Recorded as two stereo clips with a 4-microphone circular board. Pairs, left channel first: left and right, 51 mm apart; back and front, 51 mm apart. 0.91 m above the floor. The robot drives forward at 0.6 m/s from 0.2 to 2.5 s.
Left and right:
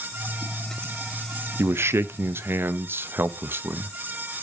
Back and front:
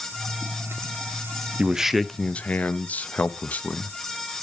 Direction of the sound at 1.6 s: 60° right.